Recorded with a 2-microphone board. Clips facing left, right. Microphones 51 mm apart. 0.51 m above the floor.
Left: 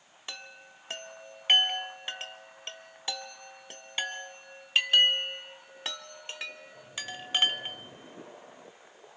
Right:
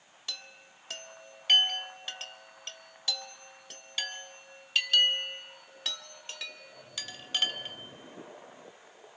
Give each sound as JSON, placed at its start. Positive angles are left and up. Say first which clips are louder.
{"t": 0.3, "sound": "a chime", "louder": "left 1 dB", "side_deg": 30, "distance_m": 0.9}